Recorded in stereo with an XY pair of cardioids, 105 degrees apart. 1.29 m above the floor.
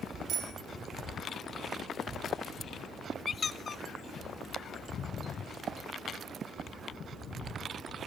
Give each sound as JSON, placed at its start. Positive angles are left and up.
{"t": 0.3, "sound": "a bicycle bell", "azimuth_deg": -60, "distance_m": 6.0}
{"t": 3.2, "sound": "a squeak", "azimuth_deg": 35, "distance_m": 1.0}